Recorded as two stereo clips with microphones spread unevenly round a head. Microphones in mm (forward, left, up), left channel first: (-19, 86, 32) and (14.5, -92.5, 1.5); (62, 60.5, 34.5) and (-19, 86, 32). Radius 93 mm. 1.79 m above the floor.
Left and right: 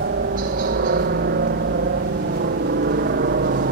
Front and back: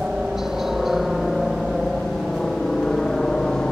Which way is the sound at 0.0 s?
110° right.